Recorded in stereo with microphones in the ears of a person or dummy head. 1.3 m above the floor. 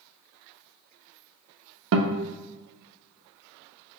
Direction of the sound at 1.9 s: 60° right (ahead or behind).